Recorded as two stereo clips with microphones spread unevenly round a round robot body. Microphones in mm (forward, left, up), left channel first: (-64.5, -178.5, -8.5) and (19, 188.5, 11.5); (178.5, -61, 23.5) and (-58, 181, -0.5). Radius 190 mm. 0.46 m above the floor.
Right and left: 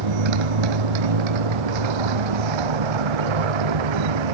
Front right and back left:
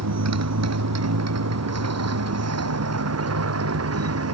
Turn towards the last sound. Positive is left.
turn(degrees=85)